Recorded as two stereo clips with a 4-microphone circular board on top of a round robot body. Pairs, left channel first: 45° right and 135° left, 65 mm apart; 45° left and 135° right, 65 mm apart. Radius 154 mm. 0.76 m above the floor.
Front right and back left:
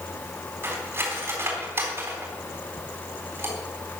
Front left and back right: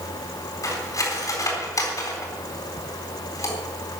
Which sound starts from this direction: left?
Cutlery clinking, at 0.6 s.